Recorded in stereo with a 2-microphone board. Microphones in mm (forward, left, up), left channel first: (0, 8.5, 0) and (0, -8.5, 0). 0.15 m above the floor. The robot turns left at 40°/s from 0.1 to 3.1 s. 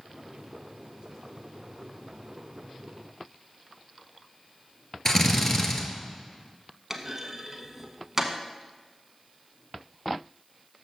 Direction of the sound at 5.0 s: 25° left (ahead or behind).